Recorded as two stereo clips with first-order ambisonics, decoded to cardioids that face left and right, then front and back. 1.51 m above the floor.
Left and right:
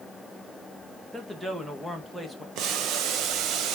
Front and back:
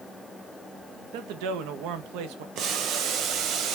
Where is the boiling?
135° right, 1.2 m.